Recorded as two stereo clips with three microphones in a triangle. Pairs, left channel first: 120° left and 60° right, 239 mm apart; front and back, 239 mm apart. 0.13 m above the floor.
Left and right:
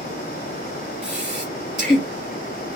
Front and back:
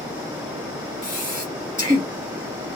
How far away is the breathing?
About 1.9 m.